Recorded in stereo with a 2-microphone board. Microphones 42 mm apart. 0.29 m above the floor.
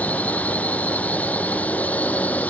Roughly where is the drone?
Left.